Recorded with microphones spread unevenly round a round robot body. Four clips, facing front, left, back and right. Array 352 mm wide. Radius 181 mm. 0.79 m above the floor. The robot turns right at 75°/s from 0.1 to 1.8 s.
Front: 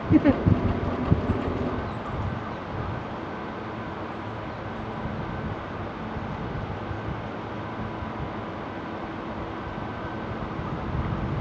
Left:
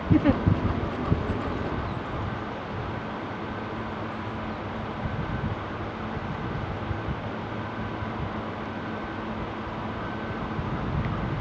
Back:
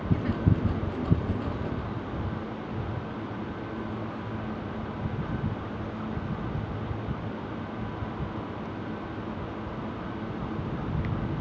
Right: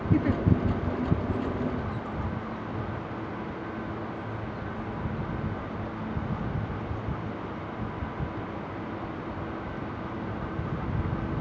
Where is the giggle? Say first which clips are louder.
Left 5 dB, front 12 dB; 10° left; by 0.4 s 35° left.